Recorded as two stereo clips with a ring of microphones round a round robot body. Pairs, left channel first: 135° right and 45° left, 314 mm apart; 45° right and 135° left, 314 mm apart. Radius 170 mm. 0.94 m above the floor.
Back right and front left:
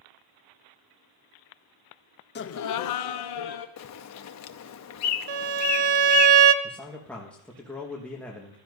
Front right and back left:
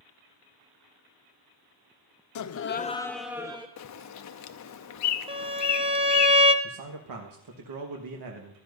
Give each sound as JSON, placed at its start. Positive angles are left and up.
{"t": 2.4, "sound": "laughter", "azimuth_deg": -75, "distance_m": 0.7}
{"t": 3.8, "sound": "a bird", "azimuth_deg": -90, "distance_m": 0.7}
{"t": 5.3, "sound": "a violin", "azimuth_deg": 60, "distance_m": 0.7}
{"t": 6.6, "sound": "a man speaking", "azimuth_deg": 140, "distance_m": 1.4}